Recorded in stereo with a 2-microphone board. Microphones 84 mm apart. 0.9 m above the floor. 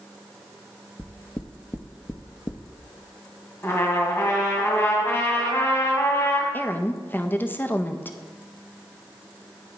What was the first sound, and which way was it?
Knocking, 25° left (ahead or behind).